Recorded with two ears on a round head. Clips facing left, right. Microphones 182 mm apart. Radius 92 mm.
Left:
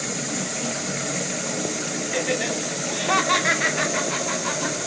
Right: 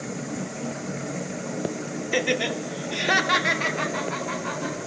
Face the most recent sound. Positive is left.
turn(degrees=55)  # may be behind; listen again after turning